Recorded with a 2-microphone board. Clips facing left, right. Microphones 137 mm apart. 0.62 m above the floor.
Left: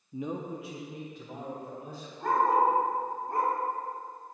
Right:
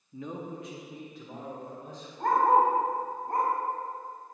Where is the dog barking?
55° right (ahead or behind), 1.7 m.